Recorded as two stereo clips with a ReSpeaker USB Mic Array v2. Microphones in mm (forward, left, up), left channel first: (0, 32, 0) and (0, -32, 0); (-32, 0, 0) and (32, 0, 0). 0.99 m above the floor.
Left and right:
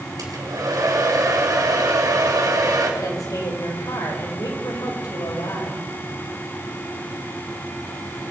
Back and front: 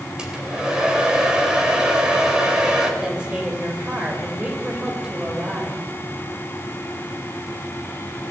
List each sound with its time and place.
0.2 s a hair dryer: 75° right, 3.5 m
3.0 s a woman speaking: 75° left, 4 m